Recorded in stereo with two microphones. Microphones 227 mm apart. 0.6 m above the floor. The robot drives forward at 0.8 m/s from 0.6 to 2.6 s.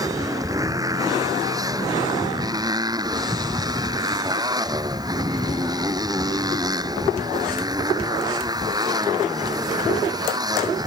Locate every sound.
0.0 s a motorcycle: 15° right (ahead or behind)